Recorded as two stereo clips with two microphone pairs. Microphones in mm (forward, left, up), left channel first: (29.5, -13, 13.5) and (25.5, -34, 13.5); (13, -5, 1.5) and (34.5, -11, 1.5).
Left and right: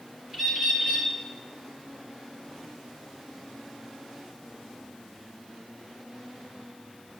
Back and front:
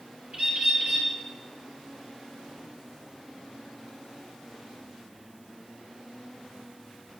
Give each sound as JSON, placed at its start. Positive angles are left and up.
{"t": 0.3, "sound": "a bird", "azimuth_deg": -50, "distance_m": 3.0}